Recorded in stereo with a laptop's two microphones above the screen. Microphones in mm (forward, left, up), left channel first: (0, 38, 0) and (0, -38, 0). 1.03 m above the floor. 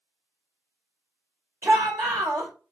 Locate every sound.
1.6 s a shout: 40° right (ahead or behind), 1.9 m